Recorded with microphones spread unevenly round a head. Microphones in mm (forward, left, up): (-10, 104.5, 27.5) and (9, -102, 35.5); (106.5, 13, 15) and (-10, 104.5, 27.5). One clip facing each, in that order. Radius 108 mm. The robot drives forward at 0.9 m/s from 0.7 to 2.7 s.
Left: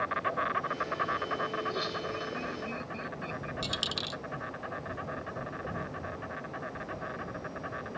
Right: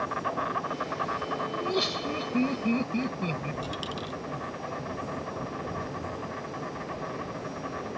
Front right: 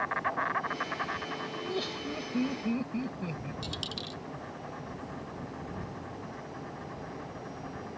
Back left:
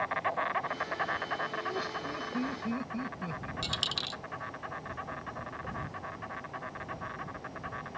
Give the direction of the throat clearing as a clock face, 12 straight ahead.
I don't hear throat clearing.